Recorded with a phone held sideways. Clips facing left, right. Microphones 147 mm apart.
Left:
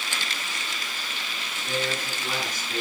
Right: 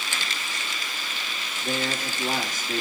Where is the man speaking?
45° right (ahead or behind), 3 m.